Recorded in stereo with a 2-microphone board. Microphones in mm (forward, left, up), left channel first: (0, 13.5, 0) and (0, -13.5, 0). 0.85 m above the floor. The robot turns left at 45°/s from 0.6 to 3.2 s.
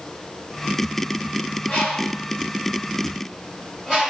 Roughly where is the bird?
Left.